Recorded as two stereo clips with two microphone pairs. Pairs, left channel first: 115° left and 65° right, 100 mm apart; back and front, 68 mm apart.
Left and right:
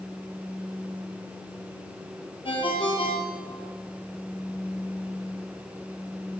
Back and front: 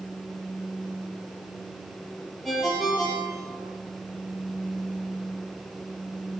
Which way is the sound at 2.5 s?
95° left.